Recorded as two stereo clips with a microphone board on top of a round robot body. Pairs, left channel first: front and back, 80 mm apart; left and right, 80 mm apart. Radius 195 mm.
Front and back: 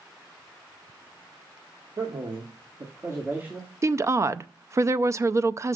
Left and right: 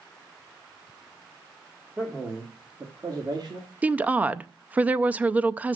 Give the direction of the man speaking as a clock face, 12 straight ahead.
6 o'clock.